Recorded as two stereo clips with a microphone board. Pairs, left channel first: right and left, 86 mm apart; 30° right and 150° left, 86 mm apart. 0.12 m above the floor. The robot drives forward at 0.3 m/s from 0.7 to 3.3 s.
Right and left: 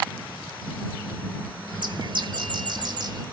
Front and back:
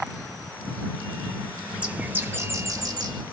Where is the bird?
70° left, 0.5 m; by 3.2 s 125° left, 0.6 m.